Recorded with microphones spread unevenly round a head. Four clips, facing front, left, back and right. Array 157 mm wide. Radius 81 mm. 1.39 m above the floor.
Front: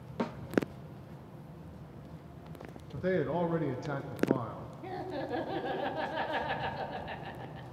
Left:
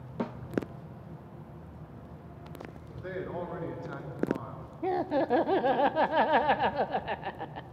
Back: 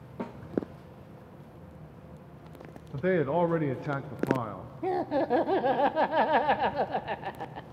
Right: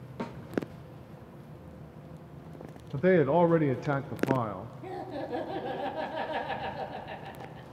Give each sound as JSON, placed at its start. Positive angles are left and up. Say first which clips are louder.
{"t": 0.2, "sound": "a snare drum", "louder": "left 3 dB, front 3 dB", "azimuth_deg": 55, "distance_m": 0.7}
{"t": 2.9, "sound": "a man speaking", "louder": "right 14 dB, back 5 dB", "azimuth_deg": -105, "distance_m": 0.6}
{"t": 4.8, "sound": "laughter", "louder": "left 10 dB, back 10 dB", "azimuth_deg": 140, "distance_m": 0.7}